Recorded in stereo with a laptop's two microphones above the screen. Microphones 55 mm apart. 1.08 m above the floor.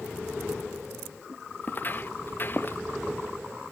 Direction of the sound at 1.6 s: 35° left (ahead or behind).